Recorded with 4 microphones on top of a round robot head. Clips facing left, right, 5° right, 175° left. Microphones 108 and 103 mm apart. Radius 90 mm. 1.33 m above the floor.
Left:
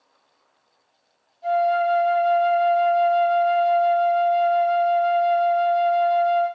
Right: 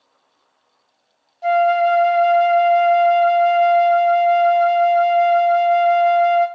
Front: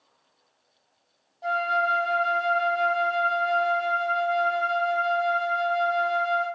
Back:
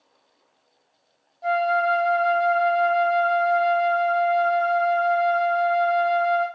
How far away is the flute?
About 0.7 m.